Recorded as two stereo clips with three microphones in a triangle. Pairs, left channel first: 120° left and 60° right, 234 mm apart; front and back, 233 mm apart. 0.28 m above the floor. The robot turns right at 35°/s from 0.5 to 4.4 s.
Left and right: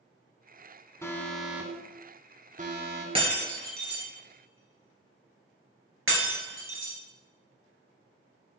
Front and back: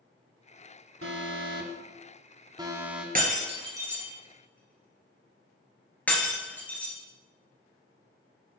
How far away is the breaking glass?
About 2.5 m.